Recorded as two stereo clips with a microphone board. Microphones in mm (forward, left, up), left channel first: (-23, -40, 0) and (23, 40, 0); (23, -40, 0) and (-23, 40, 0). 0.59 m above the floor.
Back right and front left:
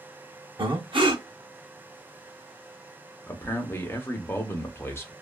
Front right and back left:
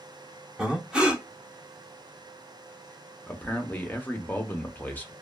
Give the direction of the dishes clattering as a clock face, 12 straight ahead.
No dishes clattering in this recording.